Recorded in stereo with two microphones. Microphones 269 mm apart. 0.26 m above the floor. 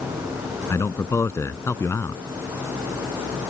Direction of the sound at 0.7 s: 10° left (ahead or behind).